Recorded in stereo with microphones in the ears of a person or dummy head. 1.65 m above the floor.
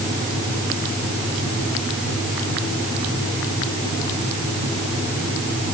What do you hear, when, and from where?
Only background noise.